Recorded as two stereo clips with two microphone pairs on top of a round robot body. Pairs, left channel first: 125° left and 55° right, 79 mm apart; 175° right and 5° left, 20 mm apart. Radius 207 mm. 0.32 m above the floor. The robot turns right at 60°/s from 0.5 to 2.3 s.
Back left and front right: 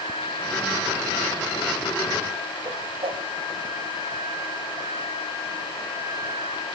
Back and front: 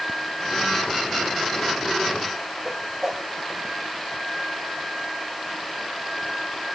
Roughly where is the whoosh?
Ahead right.